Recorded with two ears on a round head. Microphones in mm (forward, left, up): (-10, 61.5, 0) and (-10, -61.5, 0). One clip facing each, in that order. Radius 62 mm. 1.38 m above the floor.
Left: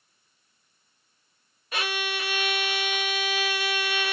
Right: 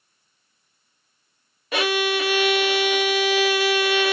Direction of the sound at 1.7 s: 60° right (ahead or behind).